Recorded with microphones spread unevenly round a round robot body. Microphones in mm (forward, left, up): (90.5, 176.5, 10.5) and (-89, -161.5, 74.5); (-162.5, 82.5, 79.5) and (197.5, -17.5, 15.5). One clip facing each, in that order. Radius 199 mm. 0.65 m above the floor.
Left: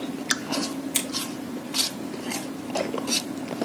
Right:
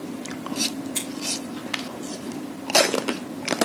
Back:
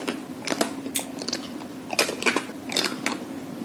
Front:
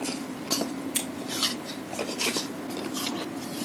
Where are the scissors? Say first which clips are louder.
Left 2 dB, even; 85° left, 4.5 m.